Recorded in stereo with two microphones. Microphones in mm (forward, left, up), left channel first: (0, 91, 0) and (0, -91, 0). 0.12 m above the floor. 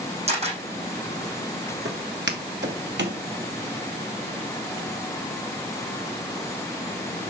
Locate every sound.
0.3 s a camera shutter: 35° right (ahead or behind), 5.5 m
1.9 s footsteps: 85° right, 2 m; by 3.2 s 80° right, 2.5 m